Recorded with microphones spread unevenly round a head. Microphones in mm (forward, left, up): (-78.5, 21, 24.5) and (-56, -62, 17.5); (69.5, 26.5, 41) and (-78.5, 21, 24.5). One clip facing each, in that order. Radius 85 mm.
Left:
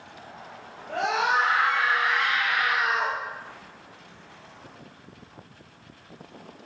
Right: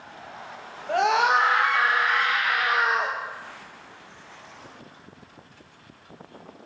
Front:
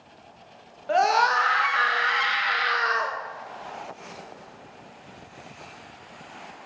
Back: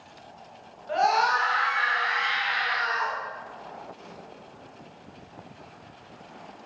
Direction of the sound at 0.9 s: 40° right.